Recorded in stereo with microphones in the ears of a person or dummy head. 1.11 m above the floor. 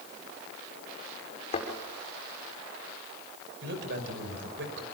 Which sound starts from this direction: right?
A man speaking, at 3.6 s.